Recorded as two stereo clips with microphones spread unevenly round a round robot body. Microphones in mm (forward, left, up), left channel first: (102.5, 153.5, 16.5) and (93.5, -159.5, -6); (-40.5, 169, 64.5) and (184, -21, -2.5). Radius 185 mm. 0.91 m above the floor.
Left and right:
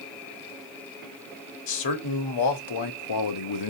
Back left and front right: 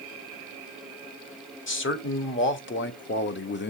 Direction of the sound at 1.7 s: 85° left.